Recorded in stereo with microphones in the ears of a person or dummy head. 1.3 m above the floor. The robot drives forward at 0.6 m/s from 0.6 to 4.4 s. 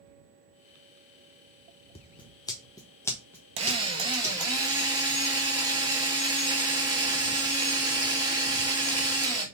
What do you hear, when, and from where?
1.9 s scissors: 30° left (ahead or behind), 0.6 m; by 4.3 s 10° left (ahead or behind), 2.0 m
3.6 s a drill: 30° right (ahead or behind), 0.8 m; by 9.4 s 20° right (ahead or behind), 1.2 m